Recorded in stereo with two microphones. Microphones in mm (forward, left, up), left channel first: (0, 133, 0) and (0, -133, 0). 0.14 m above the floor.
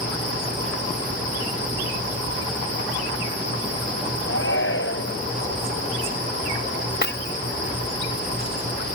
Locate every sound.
4.3 s a shout: 50° left (ahead or behind)
7.0 s breaking glass: 40° left (ahead or behind)